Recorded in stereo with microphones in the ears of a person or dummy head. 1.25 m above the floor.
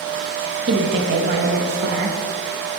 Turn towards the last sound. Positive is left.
turn(degrees=-60)  # may be behind; listen again after turning